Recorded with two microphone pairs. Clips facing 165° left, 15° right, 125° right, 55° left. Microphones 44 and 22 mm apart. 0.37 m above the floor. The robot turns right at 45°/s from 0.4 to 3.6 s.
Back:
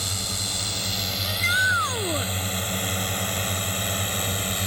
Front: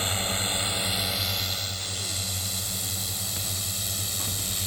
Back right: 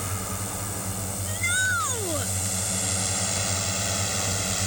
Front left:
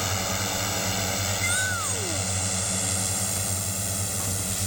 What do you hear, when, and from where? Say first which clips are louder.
0.0 s a drone: front 3 dB, front left 5 dB; 30° left; by 4.7 s 175° right
1.2 s a shout: back 10 dB, back right 5 dB; 140° left; by 2.3 s 170° right